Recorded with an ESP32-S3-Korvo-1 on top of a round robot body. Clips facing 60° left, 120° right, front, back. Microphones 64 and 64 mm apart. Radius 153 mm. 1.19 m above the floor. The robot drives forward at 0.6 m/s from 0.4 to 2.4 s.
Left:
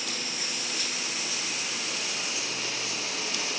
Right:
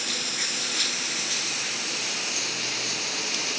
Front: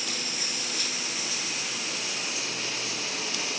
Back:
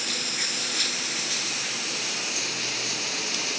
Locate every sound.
0.0 s running water: 145° right; by 3.6 s 150° right